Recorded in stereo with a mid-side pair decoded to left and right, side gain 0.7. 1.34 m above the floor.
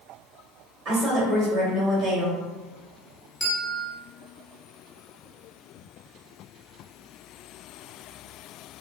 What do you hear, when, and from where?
0.8 s a woman speaking: 50° right, 1.3 m
3.4 s a bell: 5° left, 1.0 m